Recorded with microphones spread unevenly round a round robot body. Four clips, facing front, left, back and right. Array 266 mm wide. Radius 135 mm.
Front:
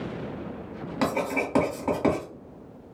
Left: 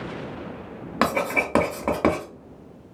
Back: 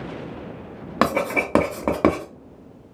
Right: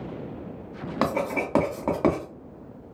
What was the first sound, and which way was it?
Writing, 155° left.